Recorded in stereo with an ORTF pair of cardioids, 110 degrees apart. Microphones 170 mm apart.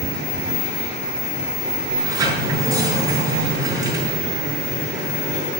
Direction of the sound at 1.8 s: 20° right.